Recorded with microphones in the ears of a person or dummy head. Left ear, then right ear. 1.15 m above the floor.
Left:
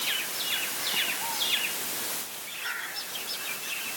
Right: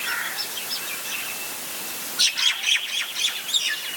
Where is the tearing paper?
No tearing paper in this recording.